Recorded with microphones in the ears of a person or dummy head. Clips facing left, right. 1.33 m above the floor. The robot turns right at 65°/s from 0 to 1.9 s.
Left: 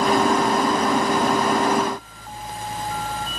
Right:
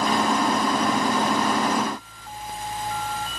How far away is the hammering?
I don't hear hammering.